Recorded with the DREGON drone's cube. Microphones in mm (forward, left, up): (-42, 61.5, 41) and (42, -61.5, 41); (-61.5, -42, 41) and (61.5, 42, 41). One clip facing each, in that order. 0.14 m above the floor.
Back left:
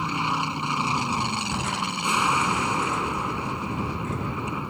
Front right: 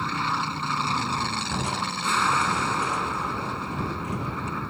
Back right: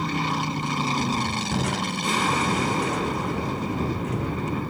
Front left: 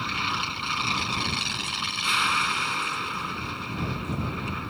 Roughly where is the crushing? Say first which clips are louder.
Even, back right 10 dB; behind right.